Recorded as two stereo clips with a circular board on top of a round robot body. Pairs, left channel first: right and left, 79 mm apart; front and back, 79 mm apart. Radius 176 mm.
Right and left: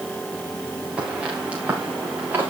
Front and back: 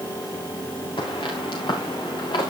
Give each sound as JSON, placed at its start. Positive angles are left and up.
{"t": 1.0, "sound": "footsteps", "azimuth_deg": 15, "distance_m": 5.5}